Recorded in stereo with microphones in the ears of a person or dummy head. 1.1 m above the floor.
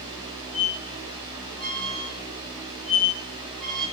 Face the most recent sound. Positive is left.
turn(degrees=0)  # may be behind; listen again after turning